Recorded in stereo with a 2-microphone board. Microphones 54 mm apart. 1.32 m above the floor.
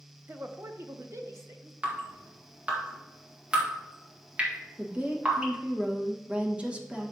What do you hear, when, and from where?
0.3 s a woman speaking: 40° right (ahead or behind), 0.7 m; by 1.7 s 70° right (ahead or behind), 1.4 m
1.8 s dripping: 25° right (ahead or behind), 1.8 m
4.8 s a woman speaking: 25° right (ahead or behind), 1.3 m